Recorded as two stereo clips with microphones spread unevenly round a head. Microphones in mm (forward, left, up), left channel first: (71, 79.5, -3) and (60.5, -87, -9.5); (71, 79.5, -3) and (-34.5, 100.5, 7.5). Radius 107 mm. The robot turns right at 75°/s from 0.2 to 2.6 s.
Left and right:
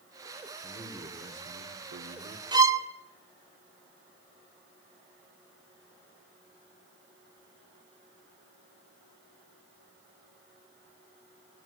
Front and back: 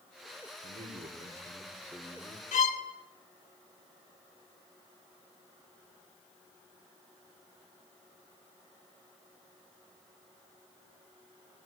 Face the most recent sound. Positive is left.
turn(degrees=-25)